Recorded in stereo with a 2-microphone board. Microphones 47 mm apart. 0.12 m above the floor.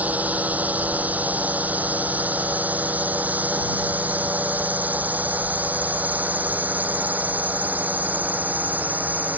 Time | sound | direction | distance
0.0 | a drone | 35° right (ahead or behind) | ?